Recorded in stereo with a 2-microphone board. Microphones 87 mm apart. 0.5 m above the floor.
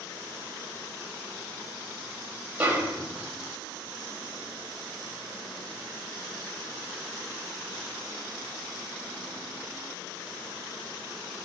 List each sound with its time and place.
2.6 s a snare drum: 20° right (ahead or behind), 0.6 m